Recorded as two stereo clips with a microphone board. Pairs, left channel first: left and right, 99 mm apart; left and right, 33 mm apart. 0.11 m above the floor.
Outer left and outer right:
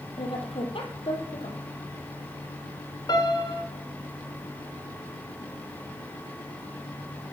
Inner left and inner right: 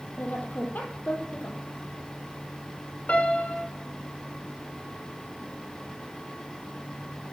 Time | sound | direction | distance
0.2 | a woman speaking | 70° left (ahead or behind) | 3.5 m
3.1 | a piano | 45° left (ahead or behind) | 7 m